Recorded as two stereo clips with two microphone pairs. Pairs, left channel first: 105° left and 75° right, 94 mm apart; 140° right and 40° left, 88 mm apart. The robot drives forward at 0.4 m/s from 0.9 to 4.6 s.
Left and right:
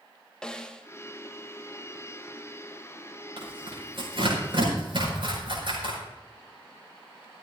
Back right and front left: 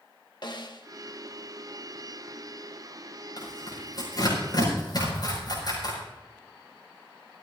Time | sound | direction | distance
0.4 | a snare drum | 175° right | 1.0 m
3.4 | tearing paper | 100° right | 6.5 m